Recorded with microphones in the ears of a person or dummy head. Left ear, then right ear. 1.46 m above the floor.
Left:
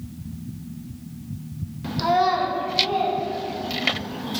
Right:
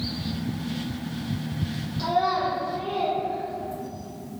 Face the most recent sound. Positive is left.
turn(degrees=70)  # may be behind; listen again after turning